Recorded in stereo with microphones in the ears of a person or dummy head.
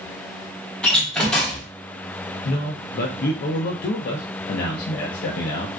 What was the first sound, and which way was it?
A door slam, 5° left (ahead or behind).